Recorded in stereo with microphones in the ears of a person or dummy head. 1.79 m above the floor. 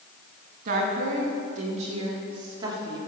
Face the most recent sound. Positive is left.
turn(degrees=-15)  # may be behind; listen again after turning